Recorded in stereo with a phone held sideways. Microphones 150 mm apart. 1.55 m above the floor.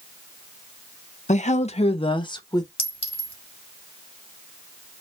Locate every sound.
1.3 s a woman speaking: 50° left (ahead or behind), 0.7 m; by 2.7 s 25° left (ahead or behind), 1.1 m
2.8 s a clink: 40° left (ahead or behind), 2.0 m